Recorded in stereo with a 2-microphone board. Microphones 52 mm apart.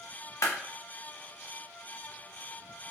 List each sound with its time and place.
0.4 s a clap: 70° left (ahead or behind), 0.9 m